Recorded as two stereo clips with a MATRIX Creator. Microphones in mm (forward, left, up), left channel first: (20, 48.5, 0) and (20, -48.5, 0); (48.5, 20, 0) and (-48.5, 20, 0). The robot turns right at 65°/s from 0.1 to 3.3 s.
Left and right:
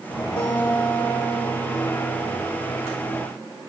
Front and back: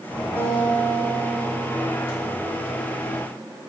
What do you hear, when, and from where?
0.4 s a guitar: 110° left, 5.5 m; by 2.4 s 115° right, 5.5 m